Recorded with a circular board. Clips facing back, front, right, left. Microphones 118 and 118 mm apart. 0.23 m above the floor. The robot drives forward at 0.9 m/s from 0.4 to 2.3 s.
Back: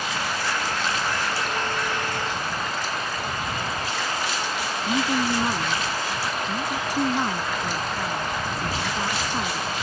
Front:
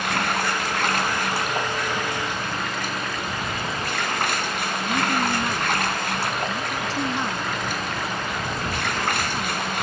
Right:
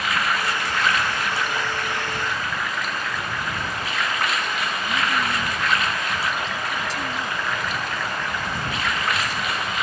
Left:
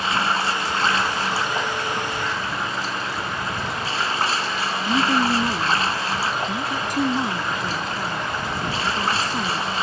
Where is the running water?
30° left.